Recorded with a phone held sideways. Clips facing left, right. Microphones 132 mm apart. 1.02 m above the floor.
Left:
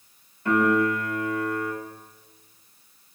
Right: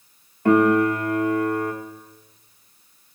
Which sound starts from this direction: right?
A piano, at 0.5 s.